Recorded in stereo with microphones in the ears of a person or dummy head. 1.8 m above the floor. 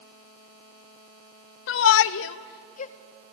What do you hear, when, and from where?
1.7 s a shout: 70° left (ahead or behind), 0.8 m; by 2.9 s 35° left (ahead or behind), 0.9 m